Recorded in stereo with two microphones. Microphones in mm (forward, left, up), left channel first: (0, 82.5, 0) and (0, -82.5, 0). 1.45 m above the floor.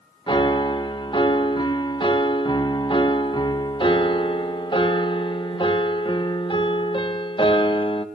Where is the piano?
30° left (ahead or behind), 1.2 m.